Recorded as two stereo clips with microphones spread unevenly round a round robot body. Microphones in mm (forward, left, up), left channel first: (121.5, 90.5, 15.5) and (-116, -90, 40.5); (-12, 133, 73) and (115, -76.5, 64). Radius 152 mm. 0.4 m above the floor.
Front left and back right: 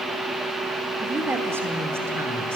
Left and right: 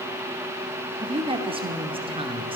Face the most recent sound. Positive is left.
turn(degrees=-60)